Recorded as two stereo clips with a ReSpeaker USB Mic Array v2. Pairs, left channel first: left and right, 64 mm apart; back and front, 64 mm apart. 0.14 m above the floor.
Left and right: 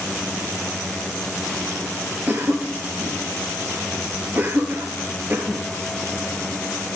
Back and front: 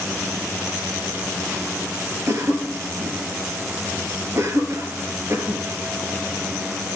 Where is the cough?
35° right, 3 m.